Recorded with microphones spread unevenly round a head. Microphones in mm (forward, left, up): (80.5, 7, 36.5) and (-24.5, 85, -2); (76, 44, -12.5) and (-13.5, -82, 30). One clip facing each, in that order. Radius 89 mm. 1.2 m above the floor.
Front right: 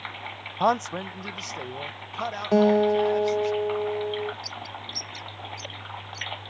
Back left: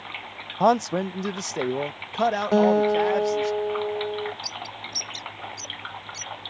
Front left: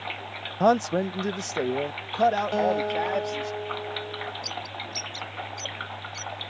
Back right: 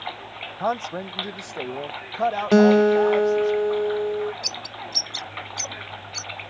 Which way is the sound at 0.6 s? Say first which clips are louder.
Back left 4 dB, front left 5 dB; 85° left.